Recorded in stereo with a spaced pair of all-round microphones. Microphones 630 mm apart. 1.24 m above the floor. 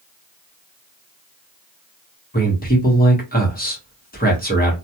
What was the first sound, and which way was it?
A man speaking, 15° left (ahead or behind).